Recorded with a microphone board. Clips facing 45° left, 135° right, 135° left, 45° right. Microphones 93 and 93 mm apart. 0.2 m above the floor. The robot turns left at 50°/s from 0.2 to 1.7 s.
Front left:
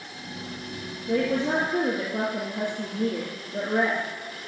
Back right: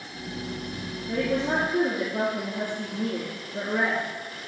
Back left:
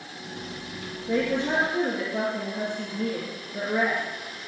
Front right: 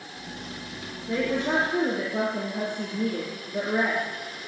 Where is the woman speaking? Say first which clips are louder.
Front left 2 dB, back left 1 dB; 45° left, 3 m; by 4.0 s 15° left, 3 m.